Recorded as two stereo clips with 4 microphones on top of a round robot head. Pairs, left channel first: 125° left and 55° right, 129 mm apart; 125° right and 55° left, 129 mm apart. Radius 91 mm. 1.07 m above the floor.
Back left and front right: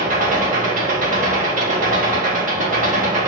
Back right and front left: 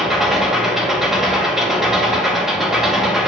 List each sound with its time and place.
0.0 s an engine running: 35° right, 2.0 m